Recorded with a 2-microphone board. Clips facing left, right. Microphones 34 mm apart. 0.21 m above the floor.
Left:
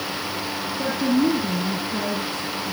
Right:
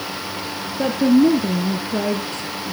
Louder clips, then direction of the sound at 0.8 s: Right 6 dB; 65° right (ahead or behind).